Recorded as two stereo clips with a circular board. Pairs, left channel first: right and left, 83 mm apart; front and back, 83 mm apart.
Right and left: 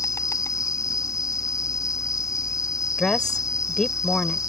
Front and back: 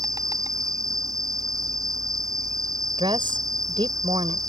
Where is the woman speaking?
170° right.